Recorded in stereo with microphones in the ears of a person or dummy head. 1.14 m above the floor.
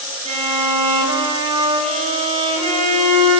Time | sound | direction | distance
0.2 | a violin | 40° right (ahead or behind) | 6.5 m